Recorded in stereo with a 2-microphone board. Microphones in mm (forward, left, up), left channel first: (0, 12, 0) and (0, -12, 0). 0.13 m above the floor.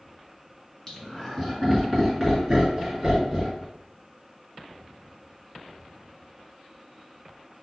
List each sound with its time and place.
0.9 s laughter: 20° left (ahead or behind), 1.6 m; by 3.6 s 10° right (ahead or behind), 2 m